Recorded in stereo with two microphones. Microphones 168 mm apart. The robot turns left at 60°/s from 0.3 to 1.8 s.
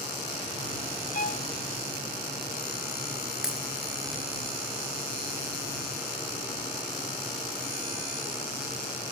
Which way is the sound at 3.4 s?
5° right (ahead or behind).